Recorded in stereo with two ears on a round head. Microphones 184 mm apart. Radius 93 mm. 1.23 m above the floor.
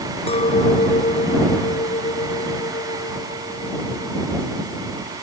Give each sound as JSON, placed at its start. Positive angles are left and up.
{"t": 0.3, "sound": "a clink", "side_deg": 30}